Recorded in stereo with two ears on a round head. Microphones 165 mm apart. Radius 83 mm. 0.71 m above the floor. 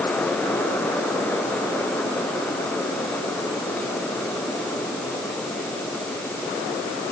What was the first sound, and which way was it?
Only background noise.